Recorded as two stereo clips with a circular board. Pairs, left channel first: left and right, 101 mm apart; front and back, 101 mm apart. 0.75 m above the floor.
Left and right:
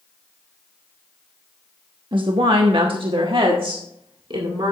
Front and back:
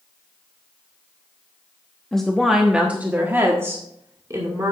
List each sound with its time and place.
2.1 s a woman speaking: 80° right, 0.9 m; by 4.7 s 125° right, 2 m